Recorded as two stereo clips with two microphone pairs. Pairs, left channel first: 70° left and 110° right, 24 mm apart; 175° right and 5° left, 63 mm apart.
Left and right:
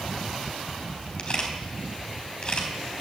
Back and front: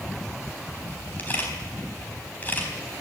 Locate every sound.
1.2 s a camera shutter: 125° left, 3.5 m